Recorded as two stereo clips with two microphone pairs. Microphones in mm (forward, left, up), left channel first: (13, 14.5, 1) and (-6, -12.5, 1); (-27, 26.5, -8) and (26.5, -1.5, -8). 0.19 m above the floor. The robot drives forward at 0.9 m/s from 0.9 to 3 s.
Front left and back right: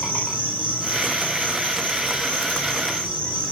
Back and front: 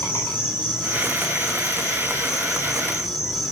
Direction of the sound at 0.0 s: 100° left.